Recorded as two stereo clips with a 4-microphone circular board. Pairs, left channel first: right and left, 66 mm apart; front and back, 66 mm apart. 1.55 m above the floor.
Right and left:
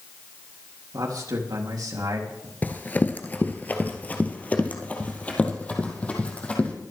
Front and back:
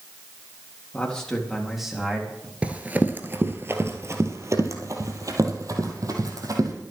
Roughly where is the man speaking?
Left.